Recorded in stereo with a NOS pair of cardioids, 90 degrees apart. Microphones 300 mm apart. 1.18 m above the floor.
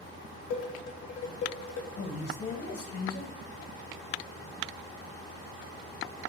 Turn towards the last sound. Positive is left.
turn(degrees=60)